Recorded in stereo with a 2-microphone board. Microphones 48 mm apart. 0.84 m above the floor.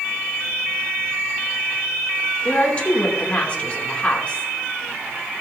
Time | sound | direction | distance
2.5 | a woman speaking | 25° left (ahead or behind) | 2.5 m